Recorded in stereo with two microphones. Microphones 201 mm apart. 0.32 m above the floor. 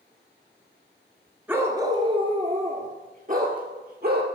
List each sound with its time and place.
1.5 s a dog barking: 10° right (ahead or behind), 1.0 m; by 4.3 s 50° right (ahead or behind), 2 m